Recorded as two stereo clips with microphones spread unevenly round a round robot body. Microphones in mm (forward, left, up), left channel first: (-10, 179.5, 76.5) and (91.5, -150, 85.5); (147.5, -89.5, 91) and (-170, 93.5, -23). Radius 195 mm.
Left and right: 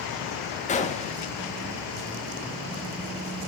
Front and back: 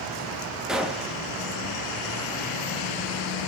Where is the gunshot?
125° left, 0.7 m.